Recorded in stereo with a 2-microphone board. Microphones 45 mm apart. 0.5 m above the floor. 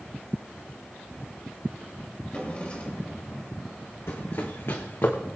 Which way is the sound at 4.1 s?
65° left (ahead or behind).